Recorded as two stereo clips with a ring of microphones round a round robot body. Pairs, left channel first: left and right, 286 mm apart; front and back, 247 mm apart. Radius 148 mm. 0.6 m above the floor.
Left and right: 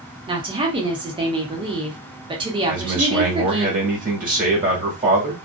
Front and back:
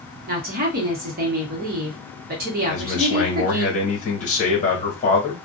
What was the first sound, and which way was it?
A woman speaking, 155° right.